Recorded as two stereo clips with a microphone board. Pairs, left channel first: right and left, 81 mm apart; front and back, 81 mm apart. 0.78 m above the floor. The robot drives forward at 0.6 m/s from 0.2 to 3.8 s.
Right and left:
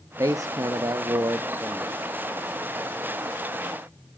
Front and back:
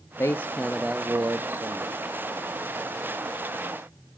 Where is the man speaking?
50° left, 0.6 m; by 2.0 s 150° left, 0.9 m.